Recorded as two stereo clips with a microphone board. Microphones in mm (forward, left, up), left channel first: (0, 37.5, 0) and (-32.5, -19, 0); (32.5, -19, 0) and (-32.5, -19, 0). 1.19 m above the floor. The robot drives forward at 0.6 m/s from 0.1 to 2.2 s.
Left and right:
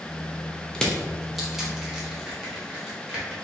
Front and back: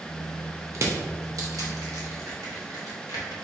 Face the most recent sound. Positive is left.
turn(degrees=160)